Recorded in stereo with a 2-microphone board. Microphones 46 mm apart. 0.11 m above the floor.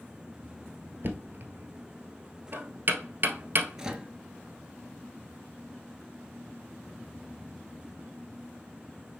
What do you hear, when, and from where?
1.0 s knocking: 50° right (ahead or behind), 1.2 m
3.8 s a microwave: 15° right (ahead or behind), 1.3 m